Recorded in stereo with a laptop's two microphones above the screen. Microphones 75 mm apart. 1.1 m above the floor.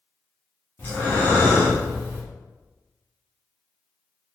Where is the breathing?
30° left (ahead or behind), 1.1 m.